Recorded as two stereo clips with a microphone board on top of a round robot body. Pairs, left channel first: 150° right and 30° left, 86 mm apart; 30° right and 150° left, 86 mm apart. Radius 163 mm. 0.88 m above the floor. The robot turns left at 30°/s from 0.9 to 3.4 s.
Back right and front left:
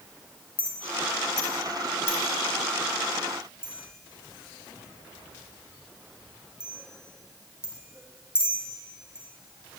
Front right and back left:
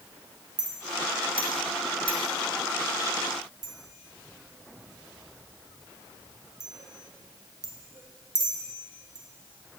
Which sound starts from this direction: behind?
A clink, at 0.6 s.